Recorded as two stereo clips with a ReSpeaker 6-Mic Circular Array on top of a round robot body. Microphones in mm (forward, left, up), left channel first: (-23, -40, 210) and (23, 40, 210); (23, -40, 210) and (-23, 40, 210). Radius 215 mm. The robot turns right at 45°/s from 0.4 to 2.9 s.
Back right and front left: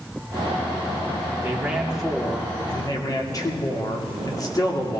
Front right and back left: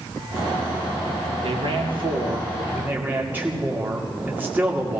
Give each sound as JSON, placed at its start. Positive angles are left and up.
{"t": 1.4, "sound": "a man speaking", "azimuth_deg": 125, "distance_m": 2.5}